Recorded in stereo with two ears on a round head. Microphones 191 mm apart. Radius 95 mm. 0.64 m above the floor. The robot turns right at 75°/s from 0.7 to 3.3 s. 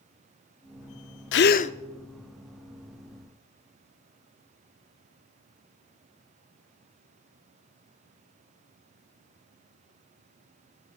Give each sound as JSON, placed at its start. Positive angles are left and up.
{"t": 1.3, "sound": "a gasp", "azimuth_deg": 120, "distance_m": 0.5}